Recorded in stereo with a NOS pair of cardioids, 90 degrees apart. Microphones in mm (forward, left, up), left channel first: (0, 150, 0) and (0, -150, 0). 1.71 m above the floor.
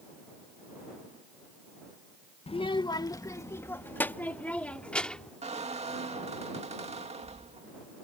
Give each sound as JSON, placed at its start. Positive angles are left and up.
{"t": 2.5, "sound": "a child speaking", "azimuth_deg": 20}
{"t": 5.4, "sound": "a squeak", "azimuth_deg": -20}